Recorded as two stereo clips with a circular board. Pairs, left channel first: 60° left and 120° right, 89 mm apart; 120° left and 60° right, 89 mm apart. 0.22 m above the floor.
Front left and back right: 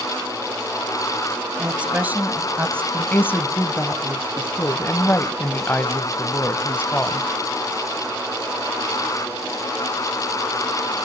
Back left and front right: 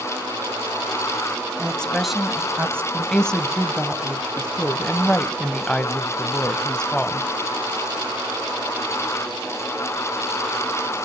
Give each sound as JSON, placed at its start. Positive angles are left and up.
{"t": 1.6, "sound": "a woman speaking", "azimuth_deg": 175, "distance_m": 1.7}
{"t": 2.9, "sound": "a woman speaking", "azimuth_deg": 55, "distance_m": 1.0}